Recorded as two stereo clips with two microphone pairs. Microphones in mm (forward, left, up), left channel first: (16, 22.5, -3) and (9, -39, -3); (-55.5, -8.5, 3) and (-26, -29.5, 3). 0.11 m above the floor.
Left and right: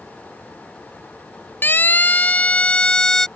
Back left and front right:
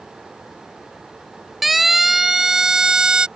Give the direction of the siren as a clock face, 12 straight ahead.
10 o'clock.